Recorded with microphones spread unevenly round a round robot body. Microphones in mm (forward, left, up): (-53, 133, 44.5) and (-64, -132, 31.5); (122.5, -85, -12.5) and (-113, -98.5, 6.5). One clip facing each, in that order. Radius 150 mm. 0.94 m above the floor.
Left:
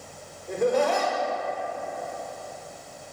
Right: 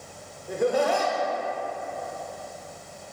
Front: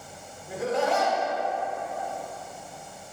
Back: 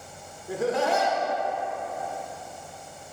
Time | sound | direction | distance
0.5 | laughter | 170° right | 0.7 m